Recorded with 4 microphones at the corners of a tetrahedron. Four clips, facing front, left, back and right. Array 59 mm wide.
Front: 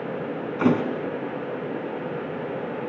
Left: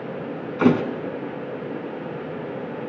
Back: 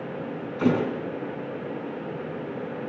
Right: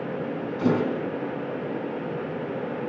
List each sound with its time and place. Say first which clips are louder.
0.6 s a thud: left 5 dB, front 2 dB; 65° left, 4 m